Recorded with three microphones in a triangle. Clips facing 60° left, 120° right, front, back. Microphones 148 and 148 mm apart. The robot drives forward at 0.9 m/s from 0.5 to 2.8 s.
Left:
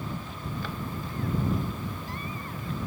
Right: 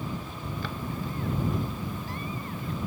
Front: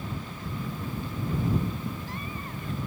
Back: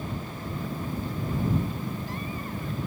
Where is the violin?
No violin in this recording.